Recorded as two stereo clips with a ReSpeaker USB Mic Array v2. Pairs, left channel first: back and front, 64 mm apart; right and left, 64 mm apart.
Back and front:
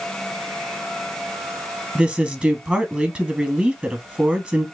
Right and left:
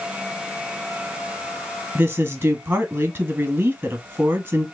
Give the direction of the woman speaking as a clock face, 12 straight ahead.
10 o'clock.